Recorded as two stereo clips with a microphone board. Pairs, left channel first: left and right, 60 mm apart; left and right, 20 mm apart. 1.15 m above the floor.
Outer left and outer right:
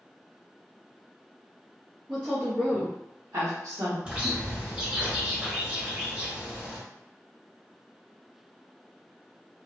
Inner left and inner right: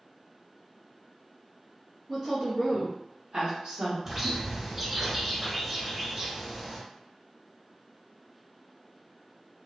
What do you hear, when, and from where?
2.1 s a woman speaking: 10° right (ahead or behind), 1.0 m; by 4.0 s 70° right (ahead or behind), 1.2 m
4.0 s a bird: 15° right (ahead or behind), 0.9 m